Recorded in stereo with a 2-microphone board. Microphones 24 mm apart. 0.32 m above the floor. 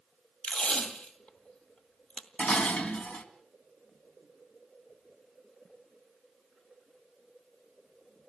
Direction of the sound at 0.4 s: 55° left (ahead or behind).